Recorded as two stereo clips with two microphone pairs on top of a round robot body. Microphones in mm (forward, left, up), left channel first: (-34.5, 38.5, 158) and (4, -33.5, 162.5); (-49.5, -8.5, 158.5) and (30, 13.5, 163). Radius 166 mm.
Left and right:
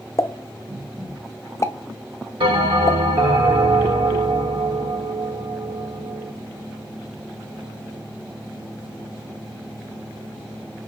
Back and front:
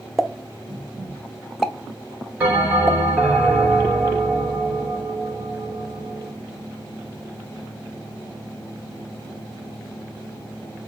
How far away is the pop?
About 1.1 m.